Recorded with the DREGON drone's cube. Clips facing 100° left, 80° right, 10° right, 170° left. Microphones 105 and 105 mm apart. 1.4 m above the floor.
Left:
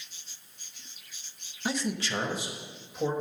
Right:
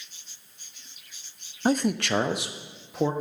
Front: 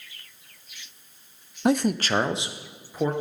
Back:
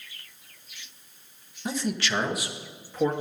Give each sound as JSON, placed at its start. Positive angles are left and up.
{"t": 1.6, "sound": "a man speaking", "azimuth_deg": -30, "distance_m": 0.6}